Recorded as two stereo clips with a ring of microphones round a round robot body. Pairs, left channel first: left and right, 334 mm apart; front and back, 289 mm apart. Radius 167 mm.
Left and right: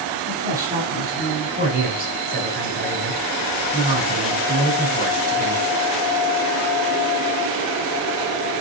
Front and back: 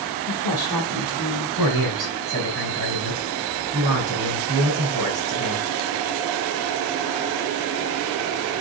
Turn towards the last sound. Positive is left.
turn(degrees=-155)